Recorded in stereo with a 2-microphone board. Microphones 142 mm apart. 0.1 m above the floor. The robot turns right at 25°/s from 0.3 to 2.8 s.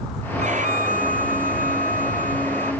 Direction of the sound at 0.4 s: 125° right.